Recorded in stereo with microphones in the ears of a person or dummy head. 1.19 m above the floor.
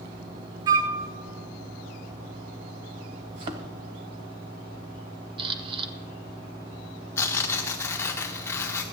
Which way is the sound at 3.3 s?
20° right (ahead or behind).